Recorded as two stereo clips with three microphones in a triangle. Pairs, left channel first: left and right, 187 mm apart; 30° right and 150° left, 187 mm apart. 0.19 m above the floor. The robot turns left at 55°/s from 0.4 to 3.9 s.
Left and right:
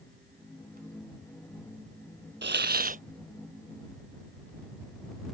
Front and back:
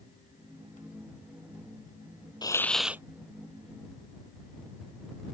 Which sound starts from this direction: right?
A hiss, at 2.4 s.